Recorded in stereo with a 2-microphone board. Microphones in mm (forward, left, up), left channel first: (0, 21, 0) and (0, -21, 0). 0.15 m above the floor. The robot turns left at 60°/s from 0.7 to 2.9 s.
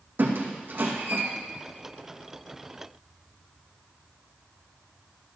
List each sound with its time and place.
0.2 s a squeak: 55° right (ahead or behind), 2 m; by 1.2 s 85° right, 2 m